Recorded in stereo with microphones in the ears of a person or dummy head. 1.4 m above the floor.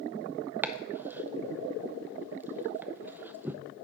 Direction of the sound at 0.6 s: 10° right (ahead or behind).